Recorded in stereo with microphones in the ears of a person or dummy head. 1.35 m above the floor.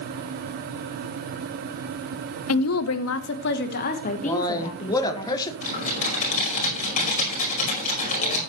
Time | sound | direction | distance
2.5 | a woman speaking | 80° left | 1.0 m
4.2 | a man speaking | 25° left (ahead or behind) | 1.8 m
5.6 | typing on a keyboard | 40° left (ahead or behind) | 5.5 m